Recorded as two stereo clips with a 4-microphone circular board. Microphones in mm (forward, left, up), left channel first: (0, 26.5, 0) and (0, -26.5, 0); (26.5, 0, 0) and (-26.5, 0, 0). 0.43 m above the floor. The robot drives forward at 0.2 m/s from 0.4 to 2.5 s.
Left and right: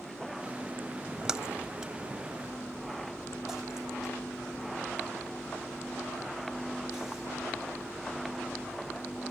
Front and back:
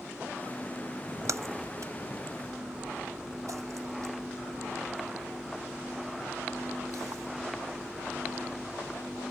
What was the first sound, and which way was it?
A splash, 165° right.